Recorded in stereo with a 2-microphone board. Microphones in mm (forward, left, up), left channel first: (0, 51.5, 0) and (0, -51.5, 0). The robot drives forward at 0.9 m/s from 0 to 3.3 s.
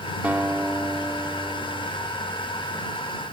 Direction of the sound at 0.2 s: 15° right (ahead or behind).